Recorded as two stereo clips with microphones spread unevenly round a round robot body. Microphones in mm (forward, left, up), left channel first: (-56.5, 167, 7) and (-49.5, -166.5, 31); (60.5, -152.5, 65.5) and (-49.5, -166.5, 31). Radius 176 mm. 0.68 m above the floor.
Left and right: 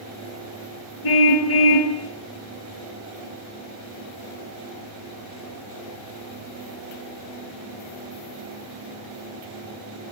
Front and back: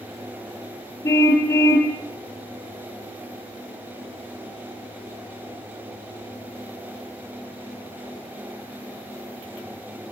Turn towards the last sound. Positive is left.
turn(degrees=80)